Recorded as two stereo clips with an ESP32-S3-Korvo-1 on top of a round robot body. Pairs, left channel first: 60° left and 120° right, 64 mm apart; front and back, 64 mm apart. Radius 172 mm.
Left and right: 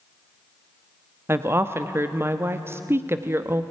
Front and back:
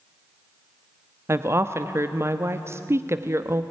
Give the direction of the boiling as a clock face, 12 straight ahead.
No boiling in this recording.